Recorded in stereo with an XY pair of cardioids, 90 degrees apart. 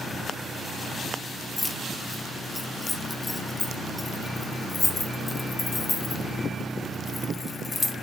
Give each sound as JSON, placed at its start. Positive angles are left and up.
{"t": 1.6, "sound": "keys jangling", "azimuth_deg": 25, "distance_m": 0.6}